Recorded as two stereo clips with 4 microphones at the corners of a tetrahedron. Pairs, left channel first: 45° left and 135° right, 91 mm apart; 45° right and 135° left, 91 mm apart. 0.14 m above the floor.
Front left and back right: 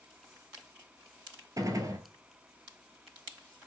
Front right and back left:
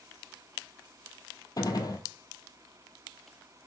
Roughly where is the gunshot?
Right.